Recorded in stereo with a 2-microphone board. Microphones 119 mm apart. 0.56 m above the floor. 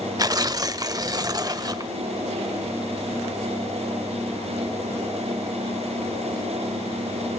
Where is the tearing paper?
30° right (ahead or behind), 0.5 m.